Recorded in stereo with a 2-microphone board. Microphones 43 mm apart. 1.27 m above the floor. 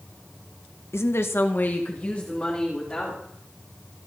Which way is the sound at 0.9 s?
80° left.